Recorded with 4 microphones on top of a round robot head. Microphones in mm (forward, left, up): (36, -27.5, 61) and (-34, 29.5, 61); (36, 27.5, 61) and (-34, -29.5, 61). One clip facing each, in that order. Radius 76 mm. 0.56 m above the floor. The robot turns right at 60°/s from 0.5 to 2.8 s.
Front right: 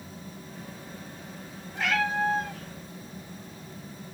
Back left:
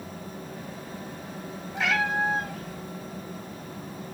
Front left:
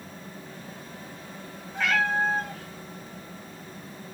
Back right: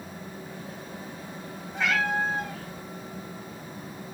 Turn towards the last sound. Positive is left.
turn(degrees=-155)